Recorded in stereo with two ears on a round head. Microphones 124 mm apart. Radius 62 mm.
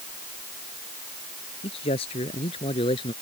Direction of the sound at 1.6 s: 40° left (ahead or behind).